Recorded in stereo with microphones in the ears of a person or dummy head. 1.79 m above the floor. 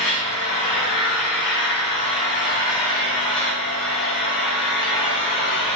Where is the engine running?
35° left (ahead or behind), 1.8 m.